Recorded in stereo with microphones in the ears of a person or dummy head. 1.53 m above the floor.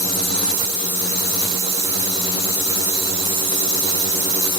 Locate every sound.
Only background noise.